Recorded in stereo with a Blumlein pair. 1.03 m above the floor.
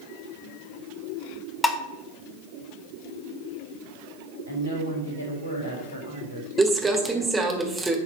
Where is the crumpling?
10° right, 1.6 m.